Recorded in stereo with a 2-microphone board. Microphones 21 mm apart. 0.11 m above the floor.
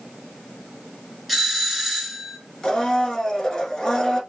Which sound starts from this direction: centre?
A doorbell, at 1.3 s.